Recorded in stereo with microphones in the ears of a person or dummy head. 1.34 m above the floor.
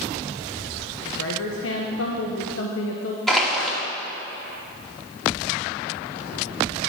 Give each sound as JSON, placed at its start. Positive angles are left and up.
{"t": 1.1, "sound": "a woman speaking", "side_deg": 70, "distance_m": 1.1}
{"t": 3.3, "sound": "crushing", "side_deg": 5, "distance_m": 2.5}